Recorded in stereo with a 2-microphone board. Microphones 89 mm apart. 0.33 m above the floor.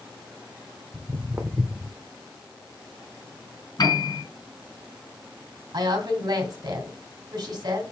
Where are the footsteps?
35° right (ahead or behind), 1.0 m; by 2.0 s 5° left (ahead or behind), 0.9 m.